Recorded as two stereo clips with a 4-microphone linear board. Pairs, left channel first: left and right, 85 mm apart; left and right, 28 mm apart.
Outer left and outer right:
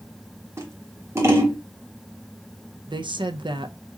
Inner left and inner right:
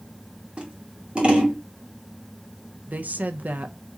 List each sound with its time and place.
0.6 s scissors: 30° right (ahead or behind), 1.6 m
2.9 s a woman speaking: 70° right (ahead or behind), 0.5 m